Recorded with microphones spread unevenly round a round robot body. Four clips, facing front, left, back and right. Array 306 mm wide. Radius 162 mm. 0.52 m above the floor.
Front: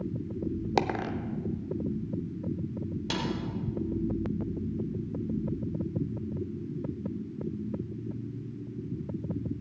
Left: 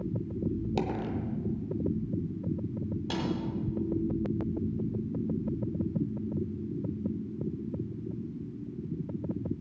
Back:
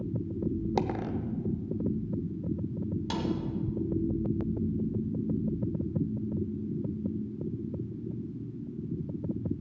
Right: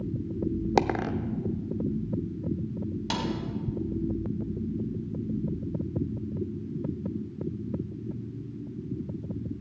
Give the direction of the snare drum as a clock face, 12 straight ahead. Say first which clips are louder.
Right 2 dB, even; 4 o'clock.